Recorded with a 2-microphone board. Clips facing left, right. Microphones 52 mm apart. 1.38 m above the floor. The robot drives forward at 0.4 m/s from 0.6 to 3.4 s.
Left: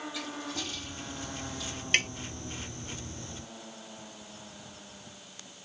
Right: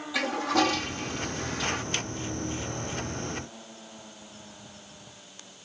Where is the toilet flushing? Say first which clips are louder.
Right 12 dB; 85° right; by 1.8 s 80° right.